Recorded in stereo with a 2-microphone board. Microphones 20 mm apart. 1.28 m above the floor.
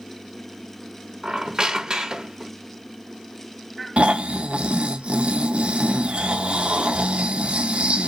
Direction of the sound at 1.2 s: 40° right (ahead or behind).